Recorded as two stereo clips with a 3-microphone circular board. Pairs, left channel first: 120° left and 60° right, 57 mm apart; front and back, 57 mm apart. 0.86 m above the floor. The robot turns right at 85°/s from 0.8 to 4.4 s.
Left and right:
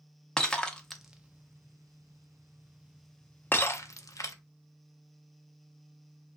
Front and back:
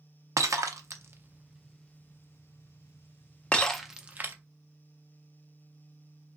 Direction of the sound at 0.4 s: 165° right.